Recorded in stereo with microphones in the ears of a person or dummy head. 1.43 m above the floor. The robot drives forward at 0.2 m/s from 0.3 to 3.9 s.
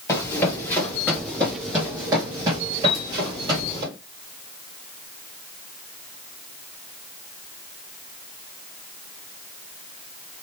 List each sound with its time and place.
0.1 s running footsteps: 15° left (ahead or behind), 1.9 m; by 3.8 s 25° right (ahead or behind), 2.5 m
2.8 s a piano: 30° left (ahead or behind), 0.7 m